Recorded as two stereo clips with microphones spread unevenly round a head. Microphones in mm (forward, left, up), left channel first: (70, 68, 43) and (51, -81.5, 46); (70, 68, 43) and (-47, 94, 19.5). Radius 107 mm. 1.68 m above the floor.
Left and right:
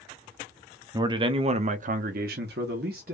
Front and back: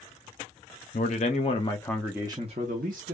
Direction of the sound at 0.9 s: 35° right.